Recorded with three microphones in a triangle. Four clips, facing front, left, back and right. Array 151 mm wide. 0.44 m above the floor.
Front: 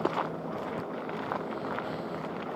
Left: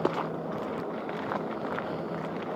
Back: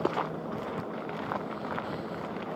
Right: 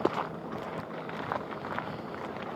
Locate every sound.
Only background noise.